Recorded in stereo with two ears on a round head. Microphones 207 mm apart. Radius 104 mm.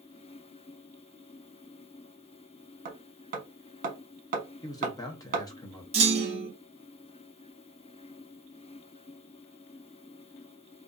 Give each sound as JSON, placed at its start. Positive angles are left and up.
{"t": 2.9, "sound": "hammering", "side_deg": -35, "distance_m": 0.8}
{"t": 4.6, "sound": "a man speaking", "side_deg": 15, "distance_m": 0.6}
{"t": 5.9, "sound": "a clunk", "side_deg": -25, "distance_m": 0.7}